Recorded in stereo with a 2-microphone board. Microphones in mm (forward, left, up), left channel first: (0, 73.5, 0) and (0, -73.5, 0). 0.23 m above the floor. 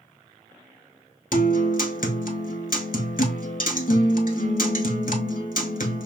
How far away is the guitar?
About 0.7 m.